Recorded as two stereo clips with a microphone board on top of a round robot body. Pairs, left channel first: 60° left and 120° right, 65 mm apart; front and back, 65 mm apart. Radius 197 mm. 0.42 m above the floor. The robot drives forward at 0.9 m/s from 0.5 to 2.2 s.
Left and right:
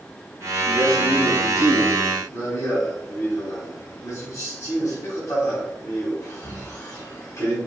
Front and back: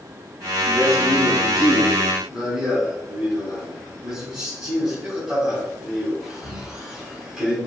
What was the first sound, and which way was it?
A man speaking, 90° left.